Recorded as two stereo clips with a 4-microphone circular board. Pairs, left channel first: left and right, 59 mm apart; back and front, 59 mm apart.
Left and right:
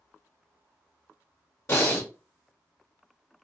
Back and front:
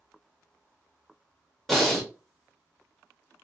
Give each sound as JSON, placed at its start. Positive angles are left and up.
{"t": 1.7, "sound": "breathing", "azimuth_deg": 95, "distance_m": 1.2}